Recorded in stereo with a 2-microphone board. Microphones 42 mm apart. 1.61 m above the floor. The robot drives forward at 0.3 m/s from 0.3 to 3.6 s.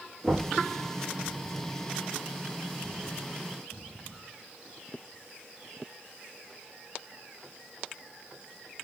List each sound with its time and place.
0.2 s knocking: 30° left (ahead or behind), 1.6 m